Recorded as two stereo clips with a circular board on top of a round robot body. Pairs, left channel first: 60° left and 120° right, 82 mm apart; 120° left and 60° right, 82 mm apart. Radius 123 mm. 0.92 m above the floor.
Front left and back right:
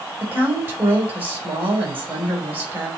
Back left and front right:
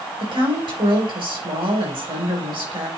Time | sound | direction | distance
0.2 | a woman speaking | 55° right | 3 m